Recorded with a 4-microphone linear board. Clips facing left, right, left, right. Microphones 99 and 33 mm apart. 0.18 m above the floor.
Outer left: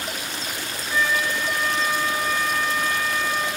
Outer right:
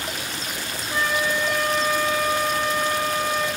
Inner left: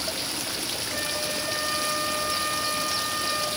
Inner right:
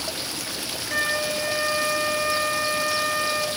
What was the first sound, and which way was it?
A flute, 55° right (ahead or behind).